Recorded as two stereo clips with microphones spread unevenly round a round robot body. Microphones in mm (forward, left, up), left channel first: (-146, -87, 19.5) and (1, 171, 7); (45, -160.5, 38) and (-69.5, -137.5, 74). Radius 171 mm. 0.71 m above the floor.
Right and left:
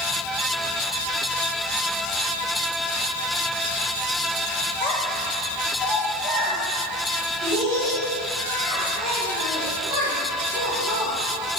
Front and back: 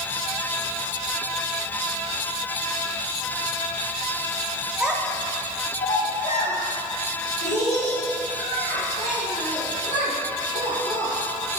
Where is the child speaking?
110° right, 0.8 m; by 11.6 s 10° left, 4.5 m.